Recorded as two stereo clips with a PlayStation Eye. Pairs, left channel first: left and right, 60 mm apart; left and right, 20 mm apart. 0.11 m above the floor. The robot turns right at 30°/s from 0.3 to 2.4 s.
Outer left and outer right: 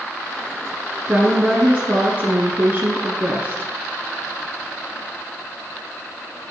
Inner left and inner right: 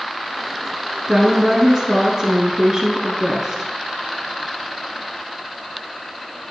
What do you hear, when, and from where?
1.1 s a woman speaking: 145° right, 1.2 m; by 3.7 s 105° right, 1.2 m